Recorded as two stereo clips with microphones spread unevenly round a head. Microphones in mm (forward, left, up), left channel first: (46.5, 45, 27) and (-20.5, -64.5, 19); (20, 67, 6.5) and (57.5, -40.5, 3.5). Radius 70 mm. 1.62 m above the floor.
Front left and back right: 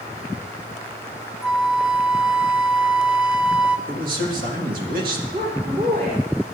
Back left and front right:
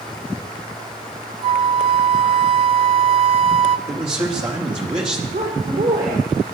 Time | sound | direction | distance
1.4 | a flute | 40° right | 0.8 m
3.9 | a man speaking | 120° right | 3.5 m
5.3 | a woman speaking | 90° right | 5.5 m